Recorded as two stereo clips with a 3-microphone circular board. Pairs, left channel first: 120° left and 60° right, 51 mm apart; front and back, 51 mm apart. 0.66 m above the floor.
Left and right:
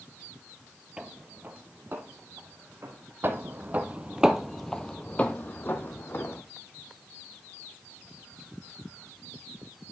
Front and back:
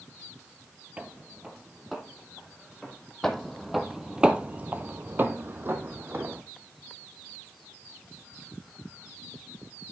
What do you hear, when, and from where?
1.0 s footsteps: 130° right, 0.9 m; by 3.1 s 85° right, 2.5 m
3.2 s footsteps: 80° right, 1.0 m; by 6.4 s 145° left, 1.4 m